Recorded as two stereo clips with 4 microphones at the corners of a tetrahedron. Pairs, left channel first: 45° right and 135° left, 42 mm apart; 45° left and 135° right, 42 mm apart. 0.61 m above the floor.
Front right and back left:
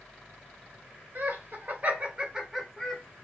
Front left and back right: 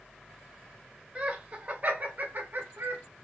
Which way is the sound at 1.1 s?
165° left.